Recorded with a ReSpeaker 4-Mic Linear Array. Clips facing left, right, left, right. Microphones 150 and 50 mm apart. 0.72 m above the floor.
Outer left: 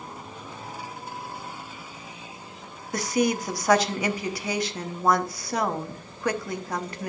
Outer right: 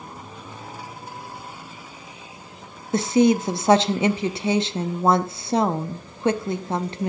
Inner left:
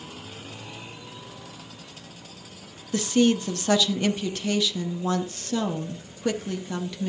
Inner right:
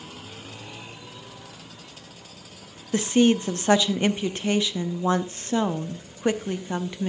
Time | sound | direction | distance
2.9 | a woman speaking | 25° right (ahead or behind) | 0.7 m